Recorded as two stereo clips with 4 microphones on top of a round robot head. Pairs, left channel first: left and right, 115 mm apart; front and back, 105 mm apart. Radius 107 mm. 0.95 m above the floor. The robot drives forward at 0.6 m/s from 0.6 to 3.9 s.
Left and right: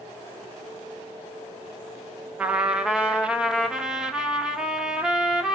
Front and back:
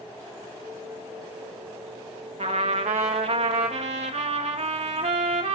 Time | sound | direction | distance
2.4 | a trumpet | 170° right | 1.5 m